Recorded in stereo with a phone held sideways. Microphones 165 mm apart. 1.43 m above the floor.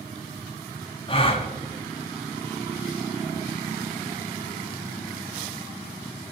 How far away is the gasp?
About 0.8 m.